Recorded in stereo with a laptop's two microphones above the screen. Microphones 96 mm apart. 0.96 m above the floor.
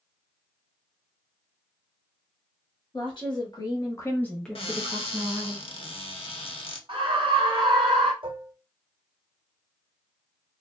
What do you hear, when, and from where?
2.9 s a woman speaking: 50° left (ahead or behind), 1.5 m; by 5.5 s 60° right (ahead or behind), 0.8 m
4.5 s a cupboard door: 65° left (ahead or behind), 0.6 m
6.9 s a scream: 60° right (ahead or behind), 0.9 m
8.2 s dishes clattering: 60° right (ahead or behind), 0.7 m